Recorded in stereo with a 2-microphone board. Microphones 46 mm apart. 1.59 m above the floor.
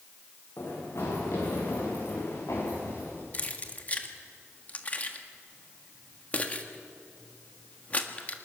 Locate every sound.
0.6 s running footsteps: 60° left (ahead or behind), 7.5 m; by 3.2 s 80° left, 8 m
3.3 s keys jangling: 35° left (ahead or behind), 1.6 m